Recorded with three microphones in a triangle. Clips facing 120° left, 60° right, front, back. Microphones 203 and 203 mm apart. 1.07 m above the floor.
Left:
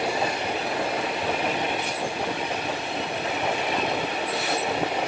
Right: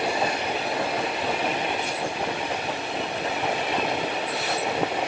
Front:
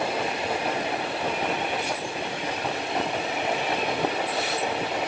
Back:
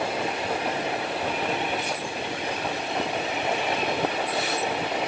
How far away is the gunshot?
No gunshot in this recording.